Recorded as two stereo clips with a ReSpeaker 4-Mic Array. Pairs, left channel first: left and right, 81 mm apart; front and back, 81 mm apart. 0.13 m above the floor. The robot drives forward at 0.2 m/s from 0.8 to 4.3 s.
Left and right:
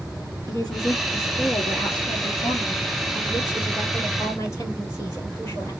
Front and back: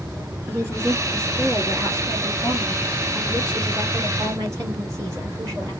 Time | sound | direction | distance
0.5 | a woman speaking | 125° left | 2.5 m